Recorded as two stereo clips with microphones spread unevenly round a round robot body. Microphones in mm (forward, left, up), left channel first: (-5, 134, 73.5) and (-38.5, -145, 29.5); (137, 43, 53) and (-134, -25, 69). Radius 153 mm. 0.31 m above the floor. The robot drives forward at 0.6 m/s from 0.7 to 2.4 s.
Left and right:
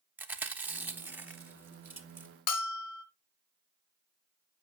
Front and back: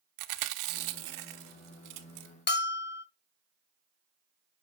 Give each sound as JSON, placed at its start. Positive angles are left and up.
{"t": 0.2, "sound": "chewing", "azimuth_deg": -175, "distance_m": 0.9}
{"t": 2.5, "sound": "a bell", "azimuth_deg": 55, "distance_m": 1.2}